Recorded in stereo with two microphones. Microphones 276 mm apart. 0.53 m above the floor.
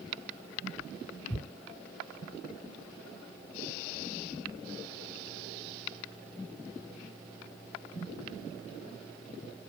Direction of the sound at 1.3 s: 5° left (ahead or behind).